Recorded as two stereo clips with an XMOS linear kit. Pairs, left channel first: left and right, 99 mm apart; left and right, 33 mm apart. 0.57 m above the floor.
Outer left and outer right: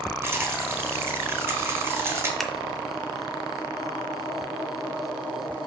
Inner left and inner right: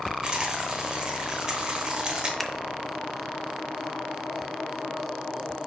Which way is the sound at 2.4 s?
Centre (ahead or behind).